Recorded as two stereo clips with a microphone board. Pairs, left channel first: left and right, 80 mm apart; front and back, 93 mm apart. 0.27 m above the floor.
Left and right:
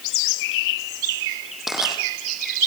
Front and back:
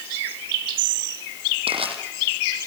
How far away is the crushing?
About 6 m.